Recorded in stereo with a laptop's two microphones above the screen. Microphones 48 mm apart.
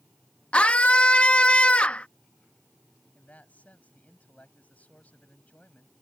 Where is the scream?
25° left (ahead or behind).